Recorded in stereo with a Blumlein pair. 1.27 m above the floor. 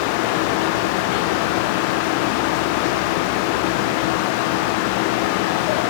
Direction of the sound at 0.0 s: 45° left.